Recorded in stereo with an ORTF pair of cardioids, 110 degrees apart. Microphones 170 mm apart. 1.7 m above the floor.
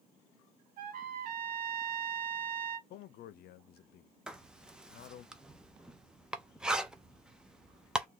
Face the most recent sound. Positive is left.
turn(degrees=-5)